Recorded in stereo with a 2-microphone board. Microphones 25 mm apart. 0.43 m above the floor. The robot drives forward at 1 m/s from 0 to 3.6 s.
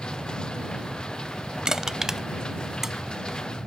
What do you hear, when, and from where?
0.0 s an aircraft: 50° right (ahead or behind)
1.6 s crushing: 25° right (ahead or behind); by 3.4 s 10° right (ahead or behind)